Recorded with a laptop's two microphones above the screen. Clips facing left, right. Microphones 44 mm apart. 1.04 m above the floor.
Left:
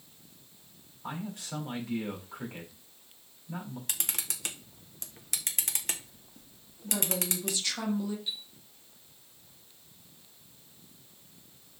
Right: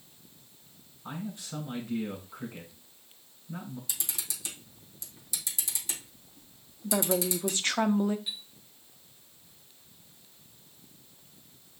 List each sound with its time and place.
1.0 s a man speaking: 90° left, 5 m
3.9 s a camera shutter: 55° left (ahead or behind), 1.3 m
6.8 s a woman speaking: 40° right (ahead or behind), 0.8 m
8.3 s a chime: 20° right (ahead or behind), 1.3 m